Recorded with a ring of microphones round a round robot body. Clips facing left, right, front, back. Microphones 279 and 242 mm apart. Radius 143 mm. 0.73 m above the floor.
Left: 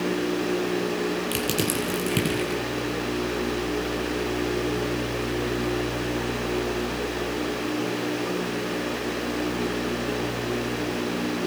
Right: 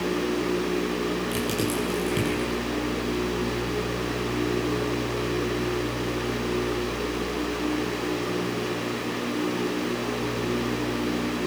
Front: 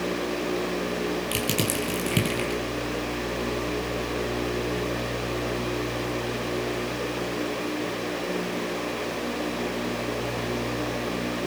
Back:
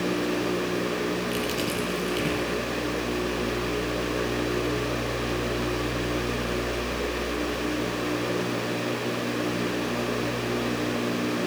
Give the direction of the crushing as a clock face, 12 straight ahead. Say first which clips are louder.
Even, even; 11 o'clock.